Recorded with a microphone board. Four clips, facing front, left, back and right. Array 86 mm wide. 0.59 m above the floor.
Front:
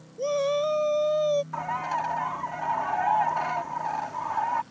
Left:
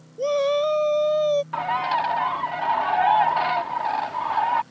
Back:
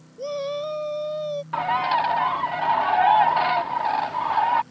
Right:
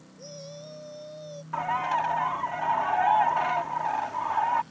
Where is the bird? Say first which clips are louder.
Left 4 dB, back 7 dB; 155° left.